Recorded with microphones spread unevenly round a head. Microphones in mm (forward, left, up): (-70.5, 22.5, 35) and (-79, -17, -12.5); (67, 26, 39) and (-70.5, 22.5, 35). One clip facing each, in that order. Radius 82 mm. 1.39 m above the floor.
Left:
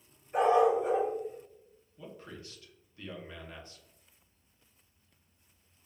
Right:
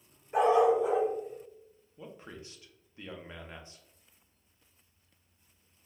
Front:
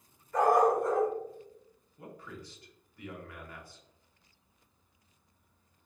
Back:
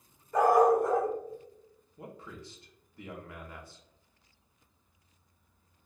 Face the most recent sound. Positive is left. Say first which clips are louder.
# even, back 1 dB
turn(degrees=-110)